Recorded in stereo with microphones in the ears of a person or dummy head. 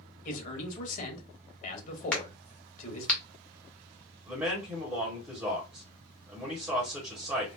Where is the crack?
5° left (ahead or behind), 0.7 m.